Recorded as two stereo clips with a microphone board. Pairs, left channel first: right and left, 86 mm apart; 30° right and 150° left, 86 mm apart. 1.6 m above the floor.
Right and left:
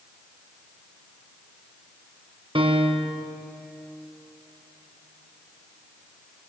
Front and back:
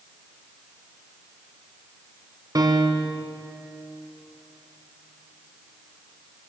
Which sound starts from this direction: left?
A piano, at 2.5 s.